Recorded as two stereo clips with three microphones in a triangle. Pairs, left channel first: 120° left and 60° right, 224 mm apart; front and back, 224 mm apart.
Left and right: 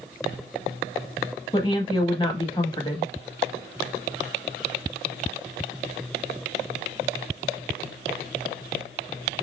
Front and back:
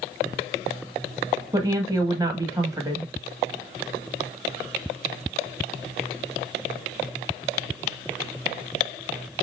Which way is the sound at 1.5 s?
140° left.